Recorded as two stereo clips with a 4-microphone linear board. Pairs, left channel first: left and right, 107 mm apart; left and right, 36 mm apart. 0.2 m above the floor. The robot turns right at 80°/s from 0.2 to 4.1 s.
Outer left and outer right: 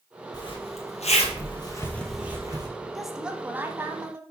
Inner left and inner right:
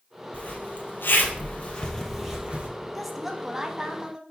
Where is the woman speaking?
Centre (ahead or behind), 1.0 m; by 4.2 s 25° right (ahead or behind), 1.0 m.